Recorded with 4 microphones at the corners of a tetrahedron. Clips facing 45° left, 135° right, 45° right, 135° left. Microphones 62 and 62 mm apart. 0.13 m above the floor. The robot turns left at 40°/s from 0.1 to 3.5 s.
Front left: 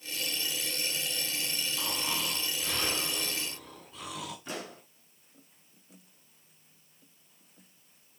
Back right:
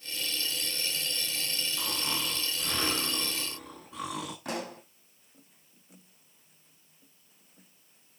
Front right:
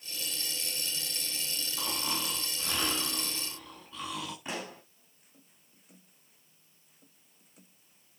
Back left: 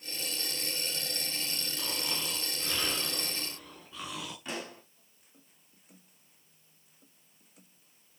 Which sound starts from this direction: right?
Snoring, at 1.8 s.